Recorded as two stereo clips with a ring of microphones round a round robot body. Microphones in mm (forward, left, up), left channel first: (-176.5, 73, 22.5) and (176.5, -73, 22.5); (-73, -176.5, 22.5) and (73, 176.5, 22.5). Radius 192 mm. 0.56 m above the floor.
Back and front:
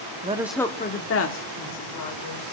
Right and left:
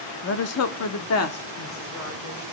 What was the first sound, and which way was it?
A woman speaking, 80° right.